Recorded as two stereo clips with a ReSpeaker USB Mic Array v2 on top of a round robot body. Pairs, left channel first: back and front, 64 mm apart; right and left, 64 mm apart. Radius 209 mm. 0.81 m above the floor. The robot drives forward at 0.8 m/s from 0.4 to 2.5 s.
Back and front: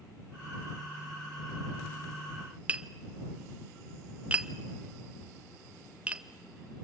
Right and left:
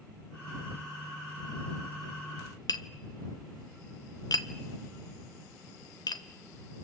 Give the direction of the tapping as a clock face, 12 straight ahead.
2 o'clock.